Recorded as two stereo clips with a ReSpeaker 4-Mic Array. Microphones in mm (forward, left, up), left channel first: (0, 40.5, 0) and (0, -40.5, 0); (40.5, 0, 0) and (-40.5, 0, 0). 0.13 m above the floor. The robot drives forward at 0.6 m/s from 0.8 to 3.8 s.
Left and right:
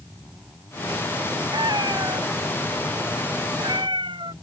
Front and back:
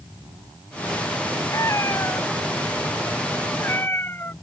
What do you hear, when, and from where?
1.5 s a cat meowing: 55° right; by 4.3 s 65° right